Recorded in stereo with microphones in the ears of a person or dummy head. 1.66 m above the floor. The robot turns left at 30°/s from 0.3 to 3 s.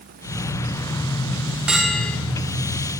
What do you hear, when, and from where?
1.7 s a bell: 5° right (ahead or behind), 0.5 m; by 2.2 s 10° left (ahead or behind), 0.5 m